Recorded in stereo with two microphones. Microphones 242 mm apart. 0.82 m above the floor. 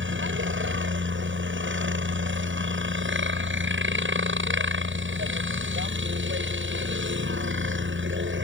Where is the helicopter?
55° right (ahead or behind).